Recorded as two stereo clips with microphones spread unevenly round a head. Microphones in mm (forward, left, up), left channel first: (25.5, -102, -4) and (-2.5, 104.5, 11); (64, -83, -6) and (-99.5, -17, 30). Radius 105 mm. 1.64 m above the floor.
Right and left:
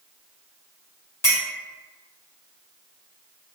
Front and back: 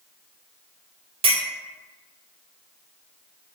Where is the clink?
160° right, 1.0 m.